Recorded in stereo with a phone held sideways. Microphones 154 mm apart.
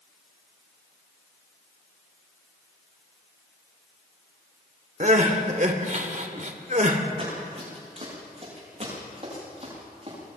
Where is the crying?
55° right (ahead or behind), 1.9 m.